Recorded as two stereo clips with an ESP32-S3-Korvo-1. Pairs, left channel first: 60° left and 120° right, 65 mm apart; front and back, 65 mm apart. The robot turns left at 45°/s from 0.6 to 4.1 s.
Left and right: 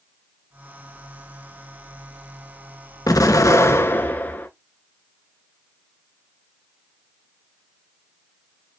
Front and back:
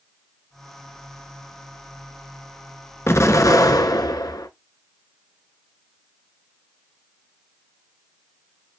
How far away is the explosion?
About 0.6 m.